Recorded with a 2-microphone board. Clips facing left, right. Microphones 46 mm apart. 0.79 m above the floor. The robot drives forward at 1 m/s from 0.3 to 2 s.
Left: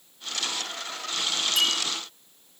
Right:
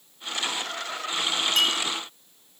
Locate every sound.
1.6 s a clink: 50° right (ahead or behind), 5 m; by 1.8 s 55° right (ahead or behind), 5 m